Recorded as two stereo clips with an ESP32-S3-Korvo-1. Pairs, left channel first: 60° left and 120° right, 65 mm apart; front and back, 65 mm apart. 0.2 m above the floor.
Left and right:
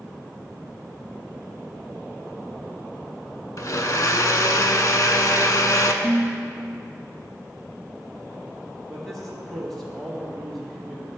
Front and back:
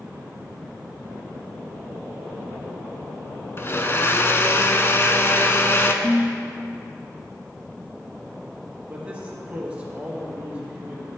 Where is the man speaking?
140° left, 1.5 m.